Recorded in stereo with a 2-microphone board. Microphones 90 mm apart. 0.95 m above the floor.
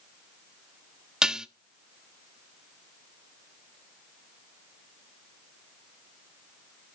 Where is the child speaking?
I don't hear a child speaking.